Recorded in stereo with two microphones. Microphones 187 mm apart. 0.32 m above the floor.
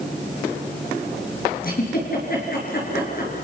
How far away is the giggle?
About 5 m.